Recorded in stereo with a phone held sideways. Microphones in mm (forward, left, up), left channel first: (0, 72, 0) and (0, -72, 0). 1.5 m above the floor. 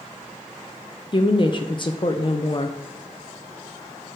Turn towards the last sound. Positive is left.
turn(degrees=35)  # may be behind; listen again after turning